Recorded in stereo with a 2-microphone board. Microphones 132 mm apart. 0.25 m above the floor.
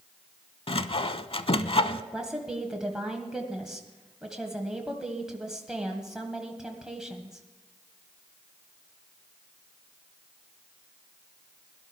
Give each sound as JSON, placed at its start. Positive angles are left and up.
{"t": 0.7, "sound": "sawing", "side_deg": 50, "distance_m": 0.6}
{"t": 2.1, "sound": "a woman speaking", "side_deg": -5, "distance_m": 1.6}